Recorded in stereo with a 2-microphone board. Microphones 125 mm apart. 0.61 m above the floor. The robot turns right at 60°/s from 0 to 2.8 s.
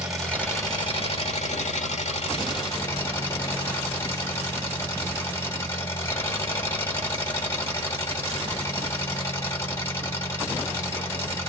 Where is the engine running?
10° right, 2 m; by 11.5 s 160° left, 2 m.